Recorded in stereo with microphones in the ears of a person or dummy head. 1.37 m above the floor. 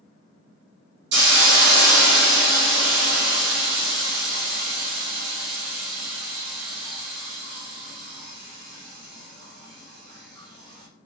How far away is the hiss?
About 0.8 m.